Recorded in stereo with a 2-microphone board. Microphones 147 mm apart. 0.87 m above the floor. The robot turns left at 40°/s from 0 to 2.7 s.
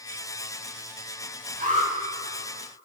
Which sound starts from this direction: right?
An alarm, at 1.6 s.